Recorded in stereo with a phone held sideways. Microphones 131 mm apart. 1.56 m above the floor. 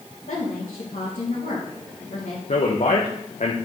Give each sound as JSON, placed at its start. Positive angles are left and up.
{"t": 0.3, "sound": "a woman speaking", "side_deg": 85, "distance_m": 2.5}
{"t": 2.5, "sound": "a man speaking", "side_deg": 65, "distance_m": 1.0}